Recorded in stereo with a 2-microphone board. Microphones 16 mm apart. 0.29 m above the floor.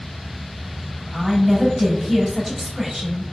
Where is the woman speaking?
15° right (ahead or behind), 1.2 m.